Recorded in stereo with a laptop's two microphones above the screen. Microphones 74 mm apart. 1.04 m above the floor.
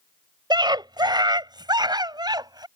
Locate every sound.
0.5 s a scream: 80° right; by 2.7 s 70° right (ahead or behind)